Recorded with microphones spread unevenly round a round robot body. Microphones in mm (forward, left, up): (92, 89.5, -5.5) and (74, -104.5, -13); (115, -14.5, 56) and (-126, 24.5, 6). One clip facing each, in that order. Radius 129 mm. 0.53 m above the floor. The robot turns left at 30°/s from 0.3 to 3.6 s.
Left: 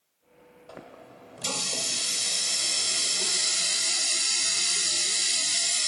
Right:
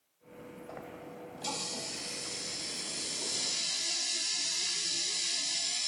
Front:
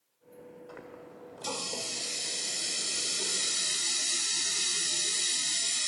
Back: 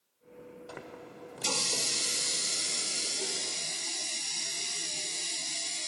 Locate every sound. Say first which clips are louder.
0.7 s a running tap: left 2 dB, back 1 dB; 150° left, 1.4 m; by 5.9 s 65° left, 1.4 m